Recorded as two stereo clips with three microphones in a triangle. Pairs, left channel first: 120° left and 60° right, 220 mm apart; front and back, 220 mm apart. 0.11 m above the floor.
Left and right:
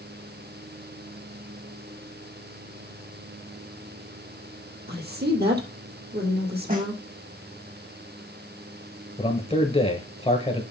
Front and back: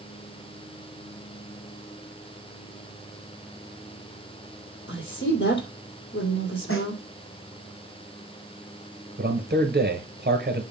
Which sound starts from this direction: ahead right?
A woman speaking, at 4.9 s.